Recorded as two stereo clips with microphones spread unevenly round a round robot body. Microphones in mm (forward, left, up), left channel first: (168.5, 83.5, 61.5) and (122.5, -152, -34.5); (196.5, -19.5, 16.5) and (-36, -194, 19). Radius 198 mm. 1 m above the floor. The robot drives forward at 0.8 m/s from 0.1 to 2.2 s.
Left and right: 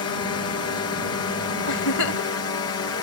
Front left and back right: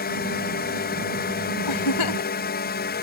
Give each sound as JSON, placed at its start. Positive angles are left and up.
{"t": 0.0, "sound": "a drone", "azimuth_deg": 80}
{"t": 1.7, "sound": "a giggle", "azimuth_deg": 70}